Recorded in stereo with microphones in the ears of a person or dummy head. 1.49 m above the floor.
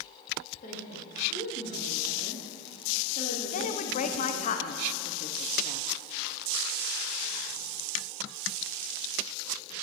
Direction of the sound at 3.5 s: 40° left (ahead or behind).